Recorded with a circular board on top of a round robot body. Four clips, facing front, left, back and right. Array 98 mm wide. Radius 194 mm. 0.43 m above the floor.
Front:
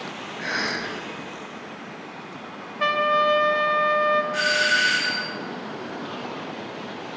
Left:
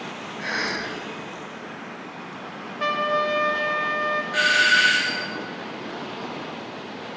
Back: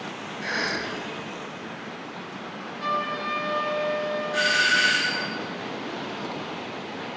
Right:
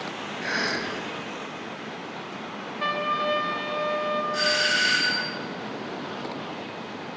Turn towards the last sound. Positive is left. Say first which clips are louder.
# left 5 dB, front 1 dB
turn(degrees=90)